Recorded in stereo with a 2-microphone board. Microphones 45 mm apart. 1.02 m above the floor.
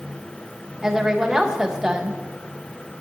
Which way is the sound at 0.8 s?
10° right (ahead or behind).